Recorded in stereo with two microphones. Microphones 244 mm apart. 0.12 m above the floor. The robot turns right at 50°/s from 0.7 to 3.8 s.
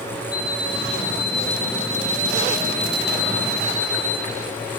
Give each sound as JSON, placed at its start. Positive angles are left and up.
{"t": 0.3, "sound": "an alarm clock", "azimuth_deg": 15, "distance_m": 2.0}